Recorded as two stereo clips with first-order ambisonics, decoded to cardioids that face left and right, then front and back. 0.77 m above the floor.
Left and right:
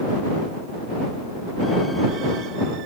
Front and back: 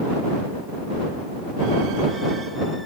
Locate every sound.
Only background noise.